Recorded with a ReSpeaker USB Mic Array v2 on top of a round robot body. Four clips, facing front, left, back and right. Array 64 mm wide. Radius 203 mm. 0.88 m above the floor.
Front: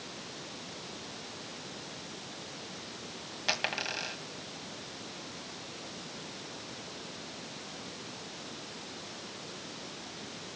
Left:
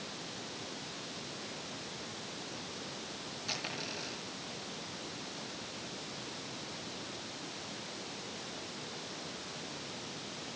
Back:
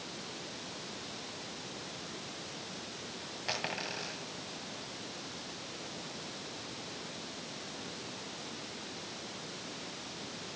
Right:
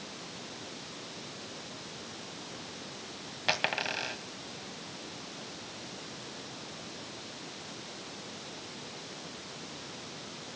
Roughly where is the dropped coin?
Right.